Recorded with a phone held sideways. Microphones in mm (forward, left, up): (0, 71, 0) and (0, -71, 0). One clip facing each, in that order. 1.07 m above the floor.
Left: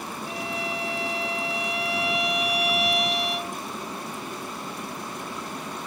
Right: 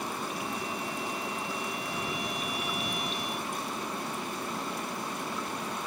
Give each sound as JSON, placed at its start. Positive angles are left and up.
{"t": 0.3, "sound": "a violin", "side_deg": 80}